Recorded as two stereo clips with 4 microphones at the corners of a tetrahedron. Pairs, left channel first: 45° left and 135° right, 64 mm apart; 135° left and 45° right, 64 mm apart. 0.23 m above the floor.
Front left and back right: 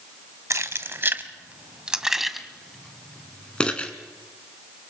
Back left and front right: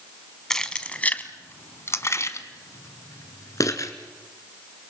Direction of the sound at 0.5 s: 145° right.